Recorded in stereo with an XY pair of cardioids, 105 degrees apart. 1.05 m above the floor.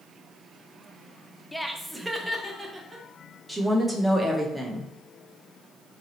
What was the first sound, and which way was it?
Laughter, 5° left.